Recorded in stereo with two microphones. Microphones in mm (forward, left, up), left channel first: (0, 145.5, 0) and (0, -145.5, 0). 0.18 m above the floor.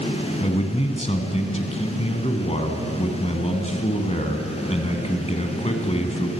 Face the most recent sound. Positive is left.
turn(degrees=20)  # may be behind; listen again after turning